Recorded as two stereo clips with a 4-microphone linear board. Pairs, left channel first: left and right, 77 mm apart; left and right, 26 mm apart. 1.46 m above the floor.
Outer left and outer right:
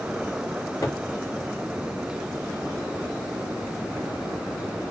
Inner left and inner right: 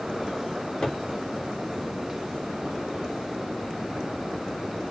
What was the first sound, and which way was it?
A cupboard door, 40° left (ahead or behind).